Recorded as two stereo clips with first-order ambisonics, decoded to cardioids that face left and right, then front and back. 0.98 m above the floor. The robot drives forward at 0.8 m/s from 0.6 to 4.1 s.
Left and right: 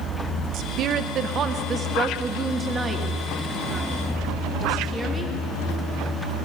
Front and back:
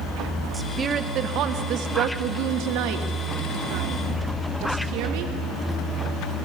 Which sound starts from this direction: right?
A woman speaking, at 0.5 s.